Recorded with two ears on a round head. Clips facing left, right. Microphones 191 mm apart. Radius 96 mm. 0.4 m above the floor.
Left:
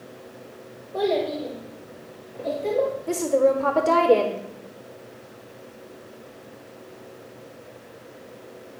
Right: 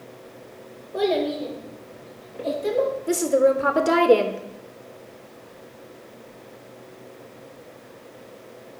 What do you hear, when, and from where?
0.9 s a child speaking: 15° right (ahead or behind), 4 m; by 3.0 s 20° right (ahead or behind), 5 m
3.1 s a woman speaking: 20° right (ahead or behind), 0.8 m